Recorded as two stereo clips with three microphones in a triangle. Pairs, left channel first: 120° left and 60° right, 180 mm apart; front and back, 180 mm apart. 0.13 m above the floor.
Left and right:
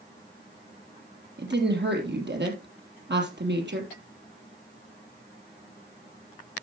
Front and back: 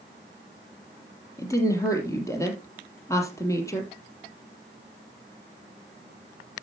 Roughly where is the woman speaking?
Right.